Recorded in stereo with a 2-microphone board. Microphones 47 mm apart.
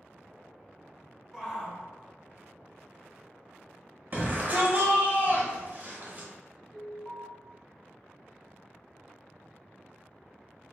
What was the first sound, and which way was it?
A shout, 5° right (ahead or behind).